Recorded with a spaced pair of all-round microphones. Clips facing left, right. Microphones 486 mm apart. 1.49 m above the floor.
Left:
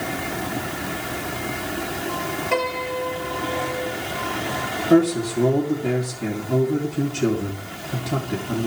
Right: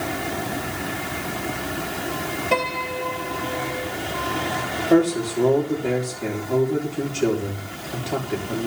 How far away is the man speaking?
About 3.5 m.